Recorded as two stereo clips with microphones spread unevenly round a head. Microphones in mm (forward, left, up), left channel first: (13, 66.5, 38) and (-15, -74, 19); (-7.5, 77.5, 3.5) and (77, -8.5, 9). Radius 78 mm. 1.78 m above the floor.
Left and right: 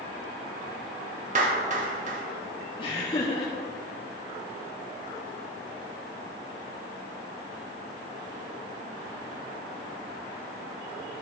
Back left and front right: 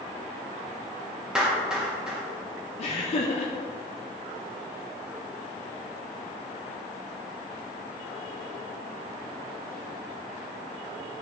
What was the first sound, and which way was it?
A clap, 125° right.